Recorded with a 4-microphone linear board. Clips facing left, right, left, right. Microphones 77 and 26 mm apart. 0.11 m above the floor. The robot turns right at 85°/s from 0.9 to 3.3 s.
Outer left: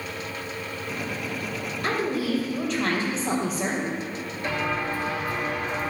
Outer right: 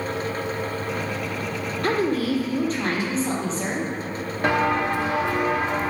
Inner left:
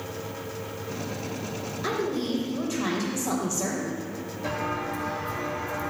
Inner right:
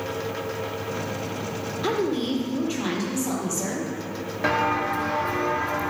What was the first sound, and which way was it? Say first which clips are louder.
A woman speaking: outer right 4 dB, inner right 3 dB; 115° right.